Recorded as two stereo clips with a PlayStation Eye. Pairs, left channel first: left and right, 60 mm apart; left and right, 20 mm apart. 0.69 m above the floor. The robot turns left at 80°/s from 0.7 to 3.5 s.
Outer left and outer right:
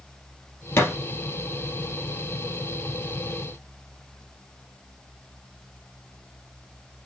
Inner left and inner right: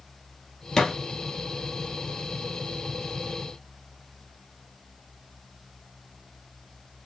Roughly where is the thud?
Left.